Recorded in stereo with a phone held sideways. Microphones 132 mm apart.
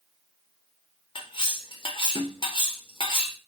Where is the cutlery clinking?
45° left (ahead or behind), 0.7 m.